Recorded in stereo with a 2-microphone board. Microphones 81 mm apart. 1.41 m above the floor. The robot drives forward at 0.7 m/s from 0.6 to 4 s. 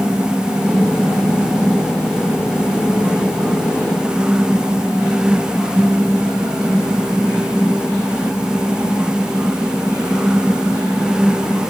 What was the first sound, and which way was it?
Only background noise.